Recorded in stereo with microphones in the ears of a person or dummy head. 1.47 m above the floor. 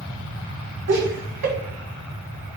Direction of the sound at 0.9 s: 55° right (ahead or behind).